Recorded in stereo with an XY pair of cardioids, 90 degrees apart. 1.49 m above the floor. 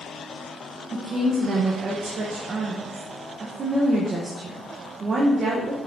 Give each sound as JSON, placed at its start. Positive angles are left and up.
{"t": 0.9, "sound": "a woman speaking", "azimuth_deg": -50, "distance_m": 1.4}